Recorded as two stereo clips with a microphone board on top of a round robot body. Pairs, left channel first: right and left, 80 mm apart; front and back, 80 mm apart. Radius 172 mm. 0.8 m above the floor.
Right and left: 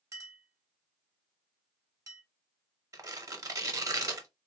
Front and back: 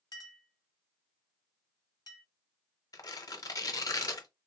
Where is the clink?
35° left, 0.8 m.